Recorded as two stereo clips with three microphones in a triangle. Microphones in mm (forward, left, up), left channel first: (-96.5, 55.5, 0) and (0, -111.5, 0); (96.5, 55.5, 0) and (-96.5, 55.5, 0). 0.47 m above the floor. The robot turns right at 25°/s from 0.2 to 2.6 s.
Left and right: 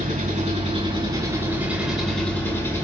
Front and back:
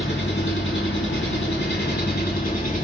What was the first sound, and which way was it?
An engine running, 15° right.